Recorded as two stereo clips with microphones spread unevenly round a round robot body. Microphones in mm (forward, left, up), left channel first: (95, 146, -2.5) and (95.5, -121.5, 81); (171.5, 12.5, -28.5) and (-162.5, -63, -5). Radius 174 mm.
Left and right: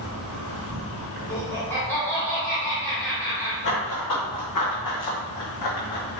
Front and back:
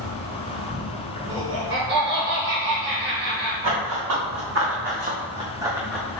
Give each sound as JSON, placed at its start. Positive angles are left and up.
{"t": 0.0, "sound": "an insect", "azimuth_deg": -45, "distance_m": 1.8}
{"t": 1.3, "sound": "laughter", "azimuth_deg": 145, "distance_m": 1.6}
{"t": 3.6, "sound": "running footsteps", "azimuth_deg": 150, "distance_m": 2.0}